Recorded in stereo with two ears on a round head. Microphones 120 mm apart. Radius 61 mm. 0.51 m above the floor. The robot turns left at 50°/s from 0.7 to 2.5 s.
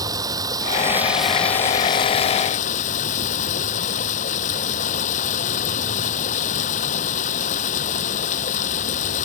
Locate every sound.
0.0 s running water: 150° right; by 9.3 s 120° left